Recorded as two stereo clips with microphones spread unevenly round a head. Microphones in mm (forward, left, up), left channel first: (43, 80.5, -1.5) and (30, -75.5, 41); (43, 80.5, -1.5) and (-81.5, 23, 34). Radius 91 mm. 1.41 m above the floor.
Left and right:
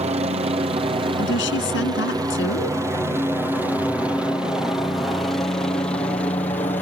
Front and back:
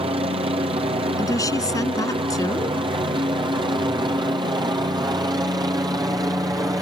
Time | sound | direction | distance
0.0 | a helicopter | 125° right | ?
1.2 | a woman speaking | 90° left | ?